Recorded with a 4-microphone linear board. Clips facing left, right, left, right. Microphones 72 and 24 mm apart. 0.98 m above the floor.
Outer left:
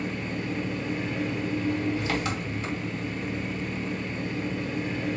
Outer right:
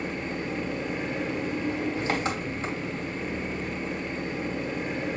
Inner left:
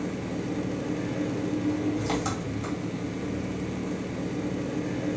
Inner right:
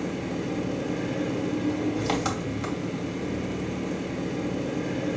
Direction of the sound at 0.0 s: 30° right (ahead or behind).